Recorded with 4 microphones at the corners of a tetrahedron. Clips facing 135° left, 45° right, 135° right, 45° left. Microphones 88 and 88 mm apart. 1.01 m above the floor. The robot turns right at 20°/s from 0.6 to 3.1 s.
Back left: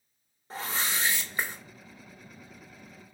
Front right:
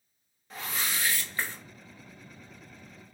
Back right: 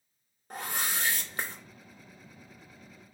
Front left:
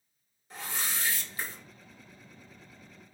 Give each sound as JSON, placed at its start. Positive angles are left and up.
{"t": 0.5, "sound": "a whoosh", "azimuth_deg": -170, "distance_m": 0.9}